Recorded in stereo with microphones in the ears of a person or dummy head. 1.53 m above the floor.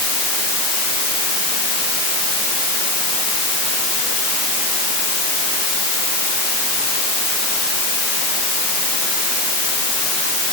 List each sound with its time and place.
Only background noise.